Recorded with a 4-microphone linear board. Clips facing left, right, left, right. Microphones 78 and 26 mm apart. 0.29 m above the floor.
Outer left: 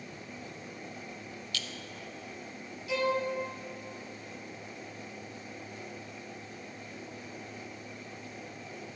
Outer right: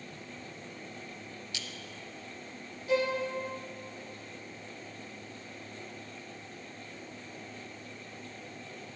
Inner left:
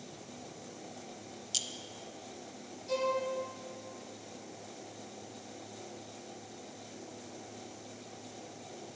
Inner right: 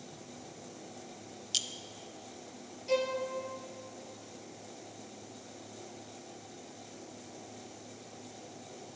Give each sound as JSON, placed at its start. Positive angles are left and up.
{"t": 1.5, "sound": "a clink", "side_deg": -20, "distance_m": 0.6}
{"t": 2.9, "sound": "a violin", "side_deg": -40, "distance_m": 2.0}